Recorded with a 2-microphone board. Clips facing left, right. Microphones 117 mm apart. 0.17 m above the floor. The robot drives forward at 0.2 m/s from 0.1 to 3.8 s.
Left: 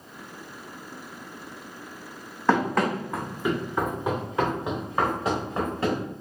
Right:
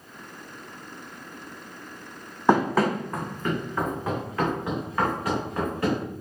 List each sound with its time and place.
2.5 s running footsteps: 15° right (ahead or behind), 0.6 m; by 6.0 s 25° left (ahead or behind), 2.5 m